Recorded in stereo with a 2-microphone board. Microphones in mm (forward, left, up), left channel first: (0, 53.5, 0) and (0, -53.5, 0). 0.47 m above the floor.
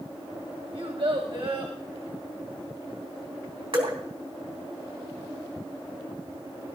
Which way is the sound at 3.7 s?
55° right (ahead or behind).